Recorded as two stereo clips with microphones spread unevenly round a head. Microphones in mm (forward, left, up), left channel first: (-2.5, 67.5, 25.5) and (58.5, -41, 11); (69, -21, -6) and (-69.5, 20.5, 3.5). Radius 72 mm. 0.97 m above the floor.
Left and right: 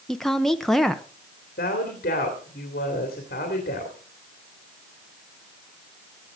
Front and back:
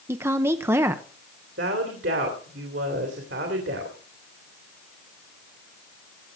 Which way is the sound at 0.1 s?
140° right.